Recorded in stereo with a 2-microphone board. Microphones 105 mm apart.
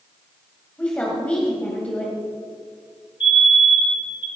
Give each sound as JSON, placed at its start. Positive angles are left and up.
{"t": 0.8, "sound": "a woman speaking", "side_deg": 15, "distance_m": 2.0}
{"t": 3.2, "sound": "a fire alarm", "side_deg": 50, "distance_m": 4.5}